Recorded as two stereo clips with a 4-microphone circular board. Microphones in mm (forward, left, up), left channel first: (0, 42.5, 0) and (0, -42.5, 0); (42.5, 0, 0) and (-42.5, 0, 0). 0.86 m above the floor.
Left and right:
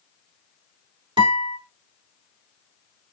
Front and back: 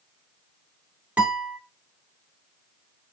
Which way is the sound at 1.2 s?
105° right.